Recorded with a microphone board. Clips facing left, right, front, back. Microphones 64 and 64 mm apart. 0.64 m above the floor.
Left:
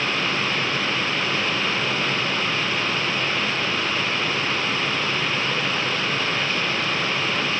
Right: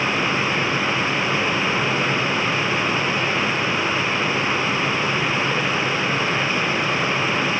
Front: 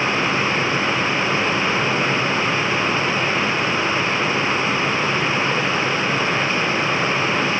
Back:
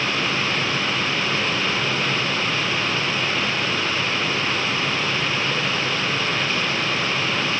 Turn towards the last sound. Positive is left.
No sound to turn to.